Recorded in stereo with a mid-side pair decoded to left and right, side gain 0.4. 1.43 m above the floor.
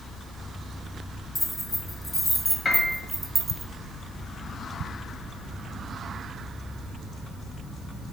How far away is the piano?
About 1.9 m.